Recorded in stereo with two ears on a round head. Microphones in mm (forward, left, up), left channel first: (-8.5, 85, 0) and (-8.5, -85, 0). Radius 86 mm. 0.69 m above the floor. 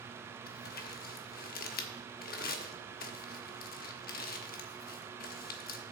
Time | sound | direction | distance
0.5 | crumpling | 50° left (ahead or behind) | 1.0 m